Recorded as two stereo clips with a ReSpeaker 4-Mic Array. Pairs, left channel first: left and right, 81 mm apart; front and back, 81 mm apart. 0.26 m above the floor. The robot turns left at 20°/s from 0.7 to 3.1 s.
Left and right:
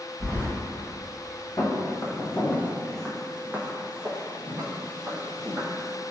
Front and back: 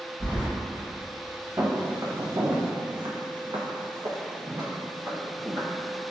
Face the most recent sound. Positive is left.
turn(degrees=-130)